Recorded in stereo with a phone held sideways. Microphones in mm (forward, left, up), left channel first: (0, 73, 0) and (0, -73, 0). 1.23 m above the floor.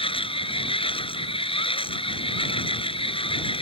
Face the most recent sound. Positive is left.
turn(degrees=35)  # may be behind; listen again after turning